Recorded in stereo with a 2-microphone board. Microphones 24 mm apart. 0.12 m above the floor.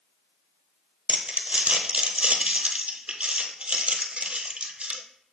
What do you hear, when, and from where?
1.1 s crumpling: 55° right (ahead or behind), 0.8 m